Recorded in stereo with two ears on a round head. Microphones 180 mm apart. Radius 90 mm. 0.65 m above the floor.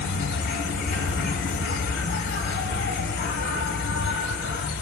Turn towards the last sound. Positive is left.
turn(degrees=55)  # may be behind; listen again after turning